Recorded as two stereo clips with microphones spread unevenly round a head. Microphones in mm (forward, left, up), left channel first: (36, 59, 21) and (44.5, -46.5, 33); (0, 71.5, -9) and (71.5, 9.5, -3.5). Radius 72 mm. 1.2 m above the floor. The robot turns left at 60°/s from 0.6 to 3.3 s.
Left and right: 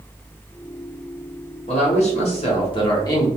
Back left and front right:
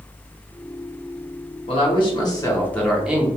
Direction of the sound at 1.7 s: 125° left.